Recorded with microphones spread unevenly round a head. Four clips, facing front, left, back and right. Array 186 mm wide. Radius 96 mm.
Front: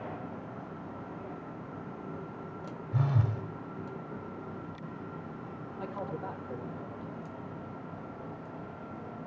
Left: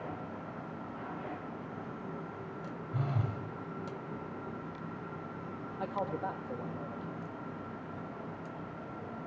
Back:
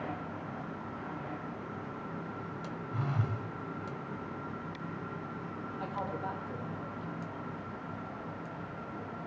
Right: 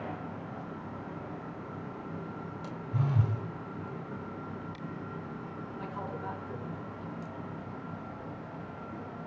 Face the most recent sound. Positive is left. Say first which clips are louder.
# left 5 dB, even
turn(degrees=80)